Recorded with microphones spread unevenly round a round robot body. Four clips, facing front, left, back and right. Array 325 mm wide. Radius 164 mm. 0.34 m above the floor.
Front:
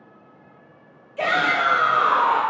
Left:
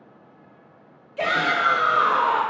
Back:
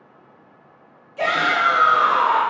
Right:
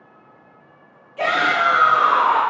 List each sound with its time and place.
1.2 s a shout: 75° left, 0.9 m